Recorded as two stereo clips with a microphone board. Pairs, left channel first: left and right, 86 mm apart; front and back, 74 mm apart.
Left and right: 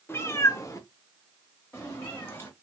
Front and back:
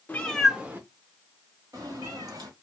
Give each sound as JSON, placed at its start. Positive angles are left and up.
{"t": 0.1, "sound": "a cat meowing", "azimuth_deg": 50, "distance_m": 0.6}